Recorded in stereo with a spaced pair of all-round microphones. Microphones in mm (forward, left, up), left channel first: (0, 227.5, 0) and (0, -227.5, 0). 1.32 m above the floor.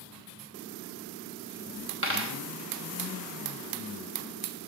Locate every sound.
2.0 s a dropped coin: 25° right (ahead or behind), 1.0 m